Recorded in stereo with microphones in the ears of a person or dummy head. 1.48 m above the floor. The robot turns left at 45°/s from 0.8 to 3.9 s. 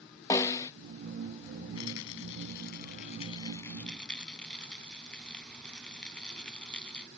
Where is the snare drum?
15° left (ahead or behind).